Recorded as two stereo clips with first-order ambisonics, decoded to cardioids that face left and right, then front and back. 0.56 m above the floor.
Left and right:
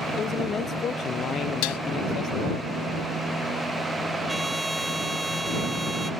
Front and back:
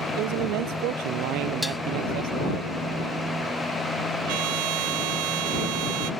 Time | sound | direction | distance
0.2 | a man speaking | 155° left | ?
1.6 | dishes clattering | 85° left | ?
4.3 | a trumpet | 175° right | ?